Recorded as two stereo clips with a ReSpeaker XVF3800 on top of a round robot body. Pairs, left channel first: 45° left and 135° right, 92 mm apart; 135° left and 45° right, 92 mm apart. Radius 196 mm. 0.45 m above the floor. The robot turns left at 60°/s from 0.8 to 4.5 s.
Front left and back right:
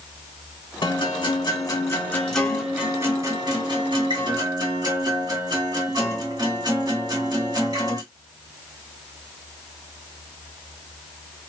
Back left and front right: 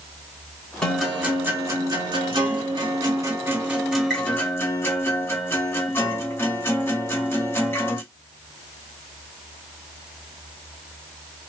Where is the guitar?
55° left, 2 m; by 8.0 s 165° right, 2 m.